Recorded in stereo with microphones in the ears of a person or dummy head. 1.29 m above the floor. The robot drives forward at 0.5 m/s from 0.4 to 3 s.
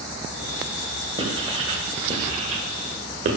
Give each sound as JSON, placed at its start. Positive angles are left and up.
{"t": 1.2, "sound": "writing", "side_deg": -35, "distance_m": 1.9}